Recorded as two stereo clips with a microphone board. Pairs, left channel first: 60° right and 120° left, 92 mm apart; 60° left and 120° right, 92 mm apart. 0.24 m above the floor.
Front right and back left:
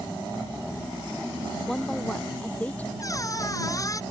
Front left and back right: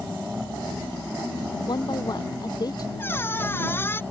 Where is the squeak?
5° right.